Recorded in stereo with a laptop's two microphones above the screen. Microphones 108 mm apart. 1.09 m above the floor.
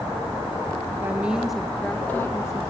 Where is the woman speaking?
20° right (ahead or behind), 1.0 m; by 2.6 s 30° left (ahead or behind), 1.3 m.